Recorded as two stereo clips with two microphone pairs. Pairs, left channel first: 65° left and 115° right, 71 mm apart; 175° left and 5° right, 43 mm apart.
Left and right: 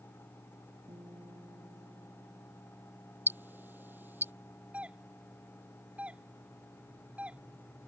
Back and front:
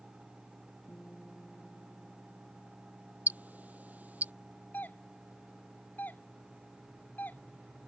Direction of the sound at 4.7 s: 175° right.